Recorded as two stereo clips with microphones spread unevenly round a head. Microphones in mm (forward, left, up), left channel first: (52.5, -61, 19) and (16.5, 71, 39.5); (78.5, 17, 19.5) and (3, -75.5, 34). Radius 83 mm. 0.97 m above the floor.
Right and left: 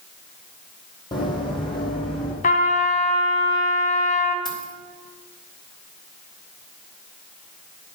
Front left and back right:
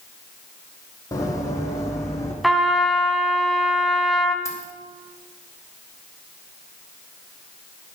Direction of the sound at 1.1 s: 15° right.